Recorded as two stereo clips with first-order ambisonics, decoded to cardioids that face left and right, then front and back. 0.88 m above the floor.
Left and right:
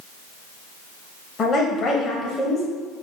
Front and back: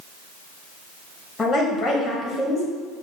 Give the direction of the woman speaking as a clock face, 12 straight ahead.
10 o'clock.